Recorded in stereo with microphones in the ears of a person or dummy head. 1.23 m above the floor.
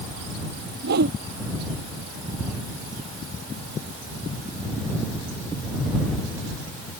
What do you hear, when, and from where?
0.8 s a whoosh: 70° right (ahead or behind)